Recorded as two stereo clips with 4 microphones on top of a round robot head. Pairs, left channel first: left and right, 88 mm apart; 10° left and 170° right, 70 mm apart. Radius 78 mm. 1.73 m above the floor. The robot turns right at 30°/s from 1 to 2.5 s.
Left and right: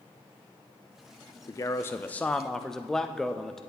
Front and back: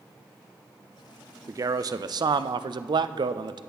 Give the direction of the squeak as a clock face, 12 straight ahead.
I don't hear a squeak.